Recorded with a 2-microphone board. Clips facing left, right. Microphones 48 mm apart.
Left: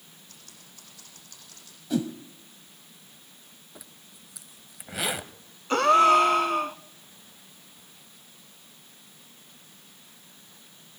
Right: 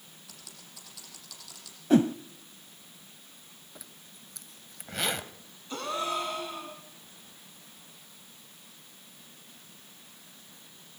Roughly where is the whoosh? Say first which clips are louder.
Right 6 dB; right.